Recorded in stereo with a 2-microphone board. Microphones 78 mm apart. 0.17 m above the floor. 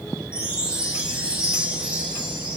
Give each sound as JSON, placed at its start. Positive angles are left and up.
{"t": 0.3, "sound": "a chime", "side_deg": -15, "distance_m": 1.5}